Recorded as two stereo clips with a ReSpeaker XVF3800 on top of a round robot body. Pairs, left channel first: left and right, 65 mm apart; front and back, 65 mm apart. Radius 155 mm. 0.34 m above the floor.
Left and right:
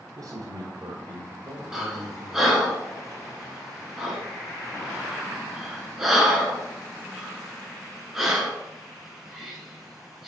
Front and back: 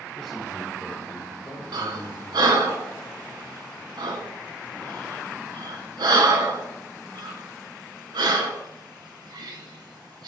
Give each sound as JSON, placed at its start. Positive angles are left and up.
{"t": 0.1, "sound": "a man speaking", "azimuth_deg": -80, "distance_m": 1.2}
{"t": 1.7, "sound": "breathing", "azimuth_deg": -175, "distance_m": 1.0}